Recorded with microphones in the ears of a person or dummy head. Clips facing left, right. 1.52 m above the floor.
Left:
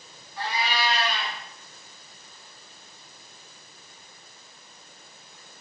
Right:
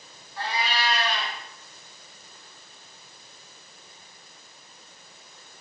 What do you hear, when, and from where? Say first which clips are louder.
0.4 s a cat meowing: left 1 dB; 65° right (ahead or behind), 1.6 m